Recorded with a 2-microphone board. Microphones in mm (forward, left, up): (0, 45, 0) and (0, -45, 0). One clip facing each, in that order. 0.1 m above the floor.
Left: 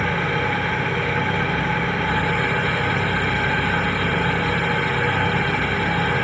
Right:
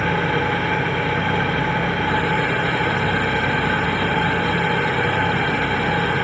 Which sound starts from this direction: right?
An engine running, at 0.0 s.